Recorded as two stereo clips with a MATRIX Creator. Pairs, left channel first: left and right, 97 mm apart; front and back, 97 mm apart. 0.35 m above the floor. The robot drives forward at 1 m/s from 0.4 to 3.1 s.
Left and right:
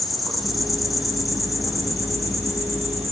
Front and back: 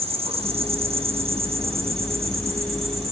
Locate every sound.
0.0 s an insect: straight behind, 4 m